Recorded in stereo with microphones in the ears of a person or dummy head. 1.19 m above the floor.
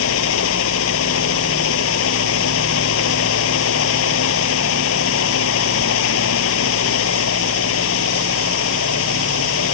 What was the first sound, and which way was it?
A fan, 75° left (ahead or behind).